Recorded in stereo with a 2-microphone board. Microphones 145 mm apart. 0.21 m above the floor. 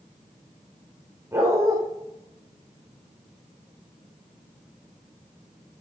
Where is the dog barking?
20° right (ahead or behind), 5.5 m.